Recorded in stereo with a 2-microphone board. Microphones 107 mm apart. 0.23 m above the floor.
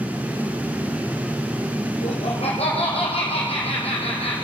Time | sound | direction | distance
2.0 | laughter | 75° left (ahead or behind) | 4.5 m